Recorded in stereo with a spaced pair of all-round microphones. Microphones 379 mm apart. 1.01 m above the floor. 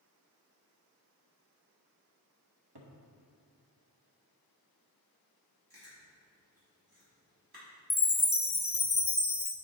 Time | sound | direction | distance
2.8 | a cupboard door | 80° right | 1.0 m
5.7 | chewing | 70° right (ahead or behind) | 2.5 m
7.9 | a chime | 35° left (ahead or behind) | 0.6 m